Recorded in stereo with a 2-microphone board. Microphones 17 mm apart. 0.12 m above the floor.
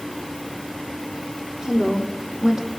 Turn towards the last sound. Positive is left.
turn(degrees=-55)  # may be behind; listen again after turning